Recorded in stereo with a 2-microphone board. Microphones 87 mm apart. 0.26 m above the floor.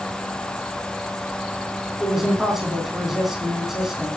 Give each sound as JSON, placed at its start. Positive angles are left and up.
{"t": 2.0, "sound": "a man speaking", "side_deg": -5, "distance_m": 2.5}